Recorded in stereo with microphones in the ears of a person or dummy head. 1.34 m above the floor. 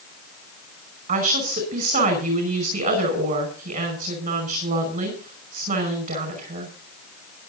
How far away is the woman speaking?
About 5.5 m.